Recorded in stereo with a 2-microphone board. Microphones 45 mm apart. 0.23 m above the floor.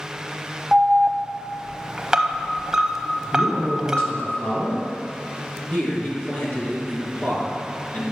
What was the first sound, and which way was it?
An alarm, 15° right (ahead or behind).